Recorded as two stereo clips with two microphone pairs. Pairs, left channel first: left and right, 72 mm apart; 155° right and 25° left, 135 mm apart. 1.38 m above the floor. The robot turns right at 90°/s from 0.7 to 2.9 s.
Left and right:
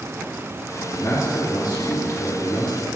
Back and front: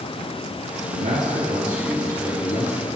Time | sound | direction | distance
0.9 | a man speaking | 15° left | 3 m